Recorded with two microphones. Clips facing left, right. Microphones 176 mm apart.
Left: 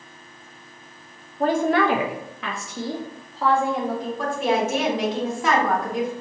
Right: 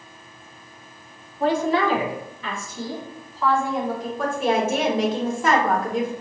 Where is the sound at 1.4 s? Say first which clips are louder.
Left 1 dB; 45° left (ahead or behind), 0.5 m; by 4.1 s 65° left (ahead or behind), 1.6 m.